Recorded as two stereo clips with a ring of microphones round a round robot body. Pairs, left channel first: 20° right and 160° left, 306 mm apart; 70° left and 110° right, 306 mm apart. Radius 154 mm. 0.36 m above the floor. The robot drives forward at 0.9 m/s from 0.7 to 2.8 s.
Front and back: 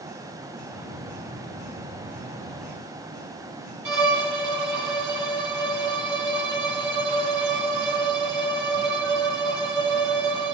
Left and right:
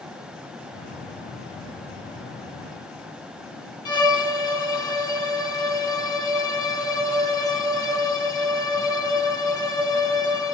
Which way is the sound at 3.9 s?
145° left.